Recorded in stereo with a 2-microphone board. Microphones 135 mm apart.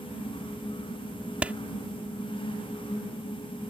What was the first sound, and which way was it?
A clap, 10° right (ahead or behind).